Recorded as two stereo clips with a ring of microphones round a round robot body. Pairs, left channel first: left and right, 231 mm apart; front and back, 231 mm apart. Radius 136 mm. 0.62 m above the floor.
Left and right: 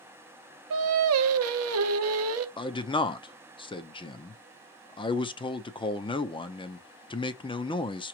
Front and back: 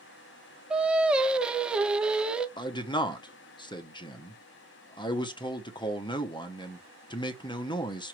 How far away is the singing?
About 0.7 m.